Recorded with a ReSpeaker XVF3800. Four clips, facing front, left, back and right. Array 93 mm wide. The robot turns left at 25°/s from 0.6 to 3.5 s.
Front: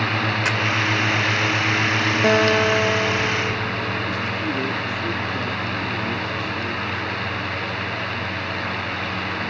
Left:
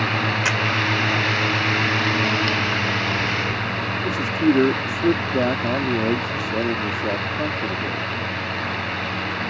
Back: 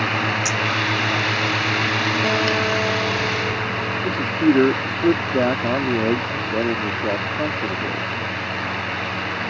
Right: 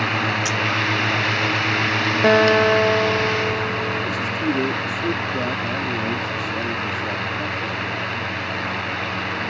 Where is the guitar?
70° right; by 4.0 s 100° right.